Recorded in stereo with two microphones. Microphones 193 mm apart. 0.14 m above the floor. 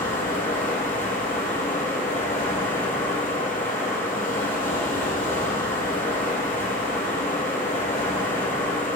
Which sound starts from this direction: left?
Running water, at 0.0 s.